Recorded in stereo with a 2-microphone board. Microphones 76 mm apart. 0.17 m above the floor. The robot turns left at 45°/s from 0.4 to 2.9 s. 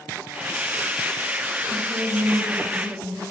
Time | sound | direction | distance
1.7 | a woman speaking | 115° right | 10 m